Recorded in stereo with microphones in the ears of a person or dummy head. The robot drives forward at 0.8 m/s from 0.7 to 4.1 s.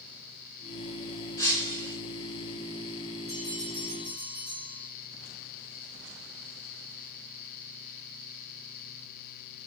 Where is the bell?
5° right (ahead or behind), 3.5 m.